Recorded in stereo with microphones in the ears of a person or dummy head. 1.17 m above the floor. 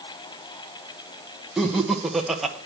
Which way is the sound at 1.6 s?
Centre (ahead or behind).